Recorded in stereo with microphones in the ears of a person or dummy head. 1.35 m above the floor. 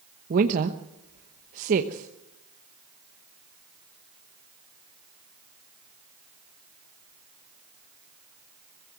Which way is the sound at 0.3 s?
50° right (ahead or behind).